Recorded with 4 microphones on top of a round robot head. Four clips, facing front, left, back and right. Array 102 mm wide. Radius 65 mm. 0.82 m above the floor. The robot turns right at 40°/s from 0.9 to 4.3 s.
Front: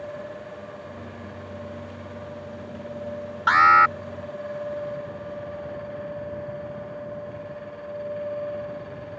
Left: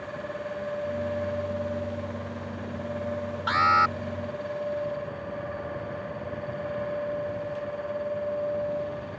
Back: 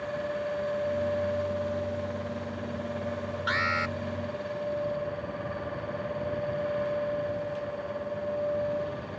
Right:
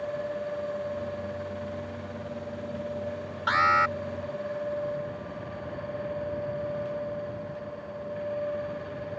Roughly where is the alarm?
Ahead.